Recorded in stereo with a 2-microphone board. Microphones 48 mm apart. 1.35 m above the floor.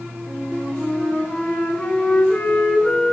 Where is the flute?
20° left (ahead or behind), 5 m.